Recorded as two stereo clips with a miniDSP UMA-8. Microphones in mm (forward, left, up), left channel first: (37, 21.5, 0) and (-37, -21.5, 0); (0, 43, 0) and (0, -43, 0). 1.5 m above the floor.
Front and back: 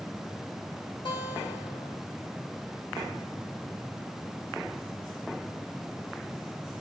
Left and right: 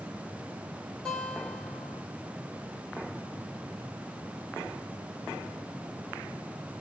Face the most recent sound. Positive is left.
turn(degrees=10)